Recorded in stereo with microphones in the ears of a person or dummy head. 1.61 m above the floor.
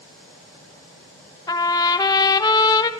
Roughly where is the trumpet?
Left.